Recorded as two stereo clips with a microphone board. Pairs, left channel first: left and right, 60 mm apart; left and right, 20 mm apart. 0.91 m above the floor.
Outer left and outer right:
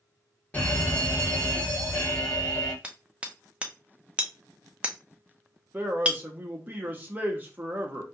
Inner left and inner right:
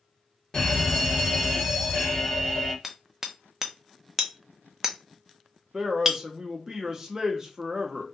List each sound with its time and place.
0.5 s a fire alarm: 20° left (ahead or behind), 1.6 m
2.8 s hammering: 20° right (ahead or behind), 0.6 m
5.7 s a man speaking: 30° right (ahead or behind), 0.8 m